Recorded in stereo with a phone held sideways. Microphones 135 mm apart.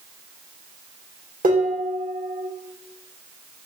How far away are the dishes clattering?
About 1.4 m.